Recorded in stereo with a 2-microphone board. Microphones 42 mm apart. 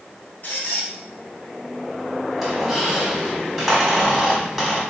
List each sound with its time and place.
0.4 s a squeak: 45° left (ahead or behind), 1.7 m
2.4 s a squeak: centre (ahead or behind), 1.4 m